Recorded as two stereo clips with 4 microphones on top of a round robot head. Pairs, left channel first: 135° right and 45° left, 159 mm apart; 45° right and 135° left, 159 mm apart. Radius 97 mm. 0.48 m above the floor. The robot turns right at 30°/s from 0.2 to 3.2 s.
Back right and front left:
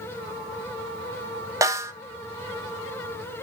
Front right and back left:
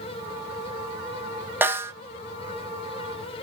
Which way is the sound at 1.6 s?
80° left.